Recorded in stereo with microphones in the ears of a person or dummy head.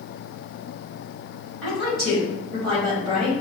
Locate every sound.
1.6 s a woman speaking: 5° left (ahead or behind), 1.8 m